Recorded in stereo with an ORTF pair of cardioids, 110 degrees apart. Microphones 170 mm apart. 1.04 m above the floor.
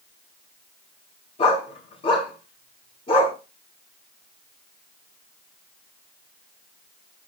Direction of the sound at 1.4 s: 35° left.